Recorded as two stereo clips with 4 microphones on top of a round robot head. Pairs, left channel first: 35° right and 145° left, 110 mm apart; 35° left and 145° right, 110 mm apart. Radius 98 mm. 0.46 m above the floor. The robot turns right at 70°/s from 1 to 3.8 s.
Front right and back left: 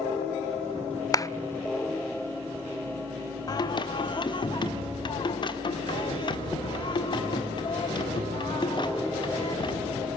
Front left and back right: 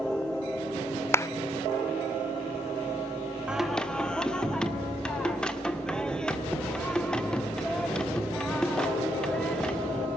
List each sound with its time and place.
1.1 s a clap: 15° right, 0.6 m; by 1.3 s straight ahead, 0.6 m
3.5 s singing: 70° right, 1.8 m; by 10.1 s 45° right, 1.8 m